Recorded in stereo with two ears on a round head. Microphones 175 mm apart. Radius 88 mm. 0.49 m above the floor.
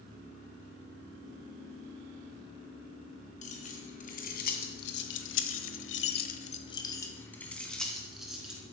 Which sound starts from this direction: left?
Keys jangling, at 3.4 s.